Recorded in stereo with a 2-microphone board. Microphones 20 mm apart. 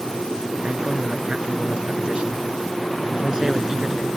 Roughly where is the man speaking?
Right.